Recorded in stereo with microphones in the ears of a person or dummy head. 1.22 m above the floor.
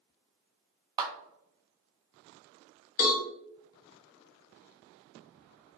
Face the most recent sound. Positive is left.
turn(degrees=45)  # may be behind; listen again after turning